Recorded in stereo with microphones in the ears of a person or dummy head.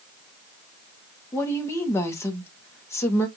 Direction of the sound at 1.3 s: 15° left (ahead or behind).